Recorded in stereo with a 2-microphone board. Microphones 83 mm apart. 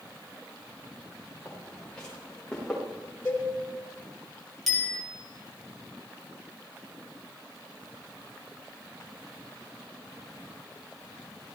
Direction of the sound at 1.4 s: 10° left (ahead or behind).